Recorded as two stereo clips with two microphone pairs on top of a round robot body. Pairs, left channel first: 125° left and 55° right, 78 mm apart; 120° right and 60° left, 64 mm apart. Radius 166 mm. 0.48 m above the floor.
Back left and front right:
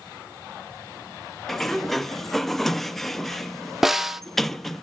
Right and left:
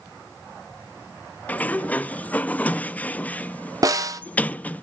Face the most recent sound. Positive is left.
turn(degrees=35)